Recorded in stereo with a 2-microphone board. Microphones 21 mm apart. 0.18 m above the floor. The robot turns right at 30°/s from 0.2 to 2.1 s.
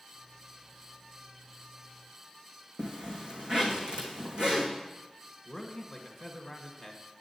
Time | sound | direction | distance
2.8 | a zipper | 50° right (ahead or behind) | 2.5 m
5.5 | a man speaking | 5° left (ahead or behind) | 1.5 m